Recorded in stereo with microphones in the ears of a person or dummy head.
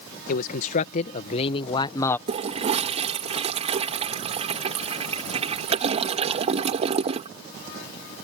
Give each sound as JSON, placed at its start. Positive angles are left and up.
{"t": 0.3, "sound": "a man speaking", "side_deg": 55}
{"t": 2.3, "sound": "a toilet flushing", "side_deg": -40}